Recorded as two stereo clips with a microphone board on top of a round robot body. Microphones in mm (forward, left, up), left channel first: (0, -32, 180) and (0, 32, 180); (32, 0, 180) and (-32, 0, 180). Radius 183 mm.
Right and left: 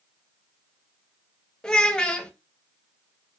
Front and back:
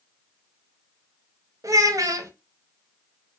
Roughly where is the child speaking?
Behind.